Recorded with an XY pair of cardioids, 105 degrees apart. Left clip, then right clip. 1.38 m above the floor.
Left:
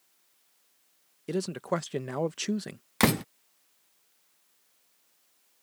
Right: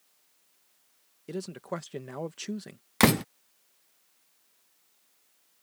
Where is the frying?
I don't hear frying.